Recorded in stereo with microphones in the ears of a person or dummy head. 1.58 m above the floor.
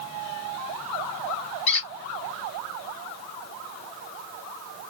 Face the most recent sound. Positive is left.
turn(degrees=35)  # may be behind; listen again after turning